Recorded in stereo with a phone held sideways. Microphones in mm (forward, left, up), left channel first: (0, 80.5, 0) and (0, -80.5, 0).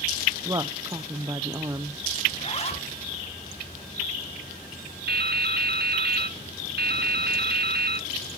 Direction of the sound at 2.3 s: 40° left (ahead or behind).